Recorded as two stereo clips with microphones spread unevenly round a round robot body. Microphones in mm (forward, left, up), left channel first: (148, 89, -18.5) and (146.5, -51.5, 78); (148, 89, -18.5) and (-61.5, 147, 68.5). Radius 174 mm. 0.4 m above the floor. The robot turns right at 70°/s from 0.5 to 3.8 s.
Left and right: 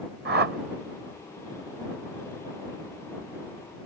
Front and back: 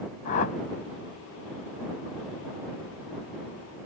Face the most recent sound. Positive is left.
turn(degrees=160)